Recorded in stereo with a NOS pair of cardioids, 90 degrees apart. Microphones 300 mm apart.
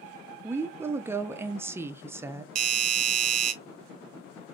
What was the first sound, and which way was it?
A woman speaking, 10° right.